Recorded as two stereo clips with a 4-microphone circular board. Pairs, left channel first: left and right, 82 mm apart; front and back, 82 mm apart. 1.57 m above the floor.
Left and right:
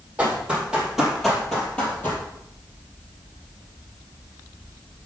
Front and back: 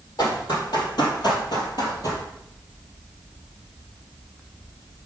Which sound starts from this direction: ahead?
Running footsteps, at 0.2 s.